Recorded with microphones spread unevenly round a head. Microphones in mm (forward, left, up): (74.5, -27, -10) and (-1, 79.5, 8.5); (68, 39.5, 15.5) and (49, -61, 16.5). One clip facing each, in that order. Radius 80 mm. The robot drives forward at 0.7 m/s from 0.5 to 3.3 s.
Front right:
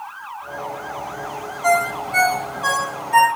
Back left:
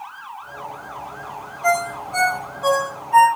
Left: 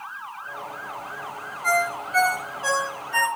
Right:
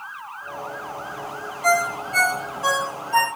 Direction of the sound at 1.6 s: 145° right.